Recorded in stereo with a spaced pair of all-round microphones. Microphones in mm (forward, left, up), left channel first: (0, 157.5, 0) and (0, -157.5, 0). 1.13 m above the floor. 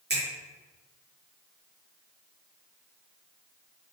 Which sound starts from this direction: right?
A finger snap, at 0.1 s.